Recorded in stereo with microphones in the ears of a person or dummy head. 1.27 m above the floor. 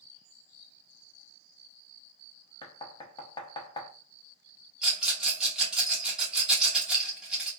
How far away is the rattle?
About 1.4 m.